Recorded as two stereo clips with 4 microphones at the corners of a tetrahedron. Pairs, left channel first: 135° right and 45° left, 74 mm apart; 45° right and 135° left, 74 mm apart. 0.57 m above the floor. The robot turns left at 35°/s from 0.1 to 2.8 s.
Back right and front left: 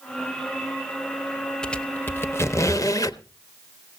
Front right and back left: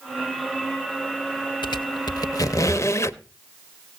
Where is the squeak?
55° right, 0.6 m; by 3.2 s 95° right, 0.6 m.